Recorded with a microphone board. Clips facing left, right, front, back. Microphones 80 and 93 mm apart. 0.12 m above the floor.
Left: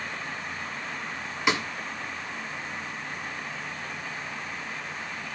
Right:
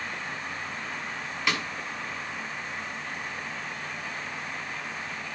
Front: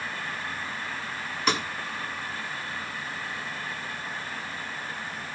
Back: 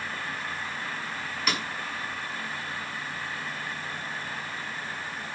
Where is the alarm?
No alarm in this recording.